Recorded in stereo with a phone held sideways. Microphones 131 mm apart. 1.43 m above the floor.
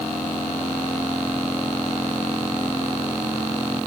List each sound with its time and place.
Only background noise.